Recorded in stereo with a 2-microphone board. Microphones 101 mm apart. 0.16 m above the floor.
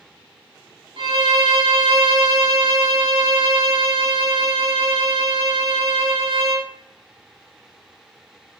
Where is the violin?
55° right (ahead or behind), 0.8 m.